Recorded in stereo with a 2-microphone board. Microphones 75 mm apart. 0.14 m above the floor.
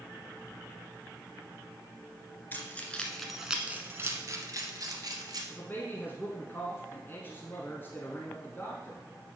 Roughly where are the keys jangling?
Left.